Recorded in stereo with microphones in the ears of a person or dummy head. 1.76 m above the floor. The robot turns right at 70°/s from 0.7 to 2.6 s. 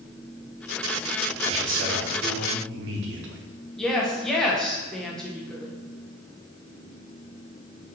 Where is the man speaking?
155° right, 0.8 m; by 3.4 s 75° right, 0.8 m.